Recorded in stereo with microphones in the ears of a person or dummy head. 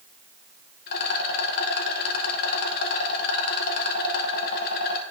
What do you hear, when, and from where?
0.9 s a rattle: 55° left (ahead or behind), 1.0 m